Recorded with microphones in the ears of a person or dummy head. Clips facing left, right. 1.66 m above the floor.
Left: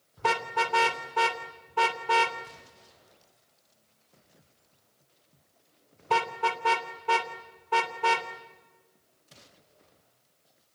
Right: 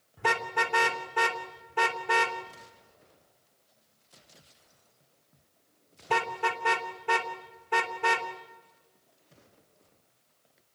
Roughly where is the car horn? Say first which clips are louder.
Left 1 dB; right.